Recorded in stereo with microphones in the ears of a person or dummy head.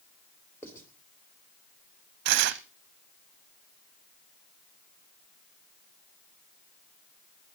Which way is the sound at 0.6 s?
15° left (ahead or behind).